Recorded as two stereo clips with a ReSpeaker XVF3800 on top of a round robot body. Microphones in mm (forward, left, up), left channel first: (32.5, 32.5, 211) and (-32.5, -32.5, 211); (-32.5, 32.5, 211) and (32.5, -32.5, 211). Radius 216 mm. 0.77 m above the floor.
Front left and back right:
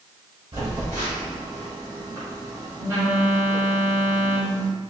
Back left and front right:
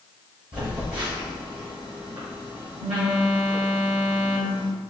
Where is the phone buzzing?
80° right, 1.2 m.